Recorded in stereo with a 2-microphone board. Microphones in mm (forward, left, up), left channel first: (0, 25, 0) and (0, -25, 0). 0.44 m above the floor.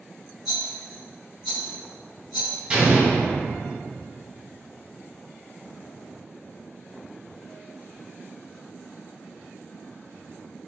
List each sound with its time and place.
0.5 s a rattle: 10° right (ahead or behind), 1.3 m
2.7 s an explosion: 20° right (ahead or behind), 0.9 m